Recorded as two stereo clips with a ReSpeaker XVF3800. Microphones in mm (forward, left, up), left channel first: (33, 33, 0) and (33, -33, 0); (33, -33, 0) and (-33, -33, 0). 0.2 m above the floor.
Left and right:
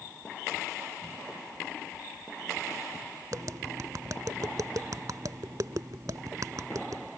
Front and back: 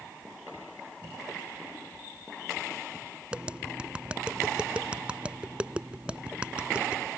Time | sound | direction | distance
3.3 | tapping | 105° right | ?